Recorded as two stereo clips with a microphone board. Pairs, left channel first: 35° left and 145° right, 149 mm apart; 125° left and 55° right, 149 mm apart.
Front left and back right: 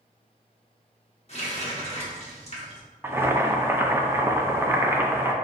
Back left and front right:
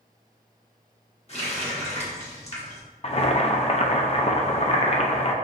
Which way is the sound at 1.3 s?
80° left.